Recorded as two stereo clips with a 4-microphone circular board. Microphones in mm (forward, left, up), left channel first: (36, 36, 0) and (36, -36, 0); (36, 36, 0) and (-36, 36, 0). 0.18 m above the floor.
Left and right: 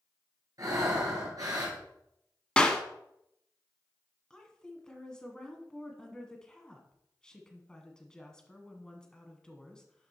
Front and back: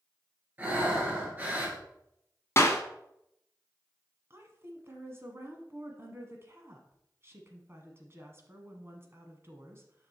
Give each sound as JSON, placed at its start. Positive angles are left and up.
{"t": 0.6, "sound": "breathing", "azimuth_deg": -115, "distance_m": 2.5}
{"t": 2.6, "sound": "a clap", "azimuth_deg": 20, "distance_m": 1.0}
{"t": 4.3, "sound": "a woman speaking", "azimuth_deg": 160, "distance_m": 1.4}